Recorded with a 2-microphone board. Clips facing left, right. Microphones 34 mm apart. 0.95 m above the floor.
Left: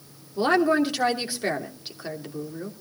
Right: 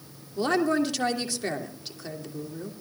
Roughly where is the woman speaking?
Left.